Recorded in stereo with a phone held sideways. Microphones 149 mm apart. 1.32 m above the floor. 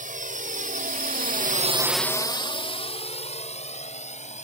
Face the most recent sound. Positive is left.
turn(degrees=55)  # may be behind; listen again after turning